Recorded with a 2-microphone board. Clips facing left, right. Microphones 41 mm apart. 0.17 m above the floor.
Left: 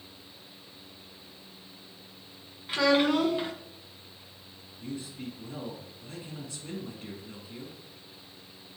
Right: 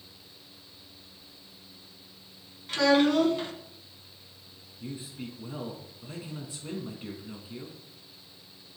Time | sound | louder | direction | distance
2.7 | a child speaking | right 1 dB | 15° left (ahead or behind) | 1.1 m
4.8 | a man speaking | left 1 dB | 20° right (ahead or behind) | 1.7 m